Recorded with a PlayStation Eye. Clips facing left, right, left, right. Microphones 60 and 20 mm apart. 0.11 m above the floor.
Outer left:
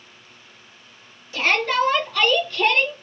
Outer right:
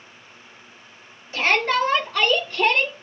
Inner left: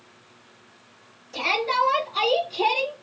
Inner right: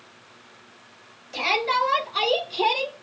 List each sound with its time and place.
1.3 s a shout: 35° right (ahead or behind), 2 m; by 2.9 s 20° right (ahead or behind), 1.9 m